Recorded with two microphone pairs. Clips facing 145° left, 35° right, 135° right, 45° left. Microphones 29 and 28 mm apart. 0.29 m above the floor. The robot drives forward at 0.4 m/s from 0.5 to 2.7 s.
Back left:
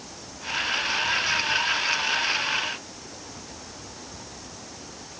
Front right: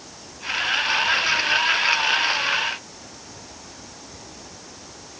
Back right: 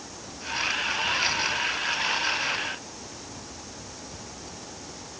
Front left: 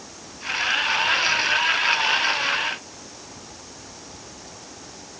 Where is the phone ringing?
No phone ringing in this recording.